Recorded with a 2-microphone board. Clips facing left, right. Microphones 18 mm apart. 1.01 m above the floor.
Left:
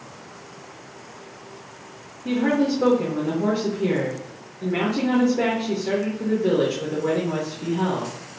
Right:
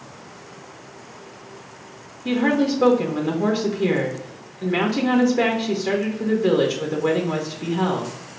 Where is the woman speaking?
40° right (ahead or behind), 0.7 m.